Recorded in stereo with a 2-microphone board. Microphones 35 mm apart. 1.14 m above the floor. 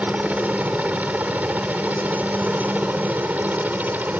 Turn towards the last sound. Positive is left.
turn(degrees=-60)  # may be behind; listen again after turning